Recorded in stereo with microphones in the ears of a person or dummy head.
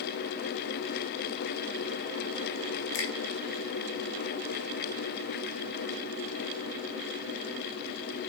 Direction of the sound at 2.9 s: 50° left (ahead or behind).